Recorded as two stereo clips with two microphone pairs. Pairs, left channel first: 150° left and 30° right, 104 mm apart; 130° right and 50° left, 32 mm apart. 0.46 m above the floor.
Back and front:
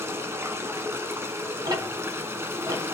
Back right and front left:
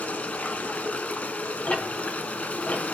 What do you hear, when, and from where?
0.0 s running water: 95° right, 1.3 m
1.6 s ticking: 80° right, 4 m